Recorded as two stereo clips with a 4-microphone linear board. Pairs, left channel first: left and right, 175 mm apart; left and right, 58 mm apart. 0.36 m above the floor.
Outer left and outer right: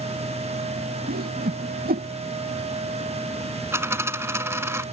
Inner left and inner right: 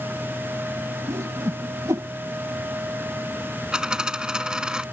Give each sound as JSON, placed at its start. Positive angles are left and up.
{"t": 1.1, "sound": "a whoosh", "side_deg": -60}
{"t": 3.7, "sound": "a dropped coin", "side_deg": -15}